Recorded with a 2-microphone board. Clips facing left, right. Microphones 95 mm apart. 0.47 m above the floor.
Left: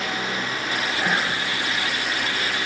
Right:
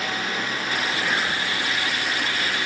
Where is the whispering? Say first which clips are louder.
Left 1 dB; 45° left (ahead or behind), 2.0 m.